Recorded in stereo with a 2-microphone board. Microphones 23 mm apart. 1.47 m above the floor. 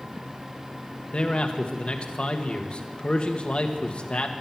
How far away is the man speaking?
About 1.3 m.